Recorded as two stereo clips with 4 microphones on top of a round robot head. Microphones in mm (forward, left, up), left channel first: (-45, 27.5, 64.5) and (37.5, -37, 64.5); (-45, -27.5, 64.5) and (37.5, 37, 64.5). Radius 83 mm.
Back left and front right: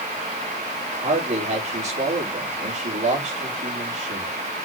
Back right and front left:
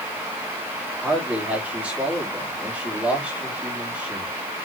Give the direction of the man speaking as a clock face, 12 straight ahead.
1 o'clock.